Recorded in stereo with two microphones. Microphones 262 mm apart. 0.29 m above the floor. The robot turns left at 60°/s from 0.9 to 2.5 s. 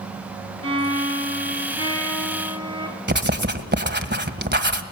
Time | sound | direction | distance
0.6 | a violin | 80° left | 2.5 m
3.1 | writing | 40° right (ahead or behind) | 1.6 m